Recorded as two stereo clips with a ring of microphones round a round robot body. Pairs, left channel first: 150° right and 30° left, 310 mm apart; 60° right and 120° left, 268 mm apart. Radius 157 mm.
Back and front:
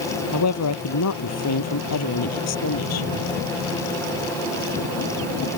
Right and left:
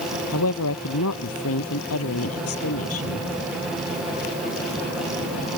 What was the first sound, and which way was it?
A woman speaking, 110° right.